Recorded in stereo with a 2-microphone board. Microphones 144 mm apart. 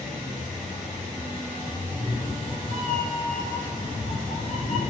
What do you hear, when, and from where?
1.8 s a cat meowing: 40° left (ahead or behind), 1.3 m; by 4.9 s 50° left (ahead or behind), 1.2 m